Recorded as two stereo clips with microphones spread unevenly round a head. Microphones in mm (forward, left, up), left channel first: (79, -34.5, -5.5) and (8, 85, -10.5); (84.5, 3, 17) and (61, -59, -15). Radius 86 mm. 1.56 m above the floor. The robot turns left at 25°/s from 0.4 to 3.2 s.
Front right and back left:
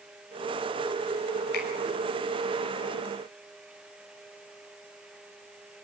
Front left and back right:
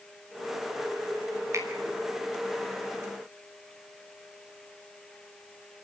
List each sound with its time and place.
1.5 s a finger snap: 60° right, 5.5 m; by 1.7 s 65° right, 5.5 m